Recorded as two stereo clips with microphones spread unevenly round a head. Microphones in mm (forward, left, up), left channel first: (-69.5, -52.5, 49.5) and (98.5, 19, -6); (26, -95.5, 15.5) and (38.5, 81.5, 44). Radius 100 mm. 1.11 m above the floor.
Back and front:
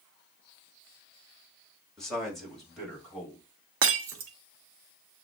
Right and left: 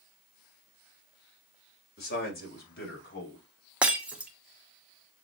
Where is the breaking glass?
5° left, 0.9 m.